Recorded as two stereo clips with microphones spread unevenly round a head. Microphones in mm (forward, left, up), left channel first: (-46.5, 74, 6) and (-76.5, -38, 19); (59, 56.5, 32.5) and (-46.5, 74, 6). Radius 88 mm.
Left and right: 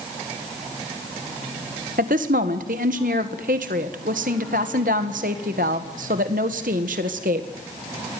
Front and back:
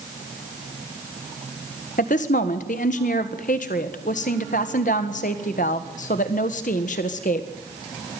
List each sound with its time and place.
2.0 s a woman speaking: 55° right, 1.6 m